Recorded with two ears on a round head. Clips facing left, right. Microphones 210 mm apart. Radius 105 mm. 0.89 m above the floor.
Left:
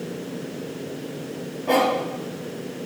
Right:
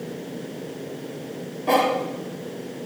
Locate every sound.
1.7 s a cough: 50° right (ahead or behind), 4 m